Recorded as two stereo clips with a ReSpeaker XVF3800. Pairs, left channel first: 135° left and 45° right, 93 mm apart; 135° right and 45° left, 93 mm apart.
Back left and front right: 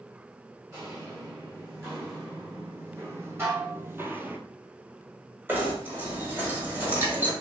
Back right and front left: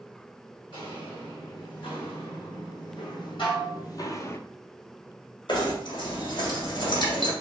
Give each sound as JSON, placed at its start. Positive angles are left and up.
{"t": 0.7, "sound": "footsteps", "azimuth_deg": -110, "distance_m": 2.0}
{"t": 3.4, "sound": "dishes clattering", "azimuth_deg": -110, "distance_m": 2.0}
{"t": 5.5, "sound": "knocking", "azimuth_deg": -110, "distance_m": 1.3}